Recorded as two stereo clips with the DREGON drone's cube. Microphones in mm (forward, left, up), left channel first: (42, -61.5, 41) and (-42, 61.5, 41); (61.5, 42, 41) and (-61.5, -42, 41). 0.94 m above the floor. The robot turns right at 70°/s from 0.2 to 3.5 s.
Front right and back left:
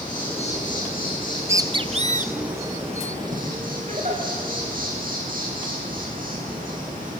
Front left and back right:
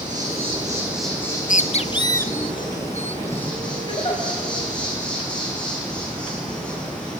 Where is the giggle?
90° left, 5 m.